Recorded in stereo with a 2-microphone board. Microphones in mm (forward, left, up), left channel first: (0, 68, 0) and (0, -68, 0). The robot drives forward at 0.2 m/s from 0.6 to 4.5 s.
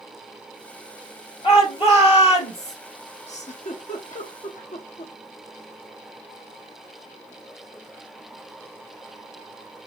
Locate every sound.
1.4 s a shout: 50° left (ahead or behind), 2.5 m
3.3 s a giggle: 60° left (ahead or behind), 0.8 m; by 5.1 s 75° left (ahead or behind), 0.8 m